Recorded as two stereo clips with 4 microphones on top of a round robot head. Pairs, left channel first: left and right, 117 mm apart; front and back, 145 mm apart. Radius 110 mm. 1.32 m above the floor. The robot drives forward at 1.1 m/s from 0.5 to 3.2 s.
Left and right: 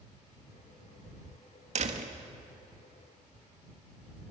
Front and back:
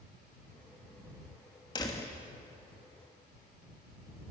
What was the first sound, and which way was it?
A door slam, 65° right.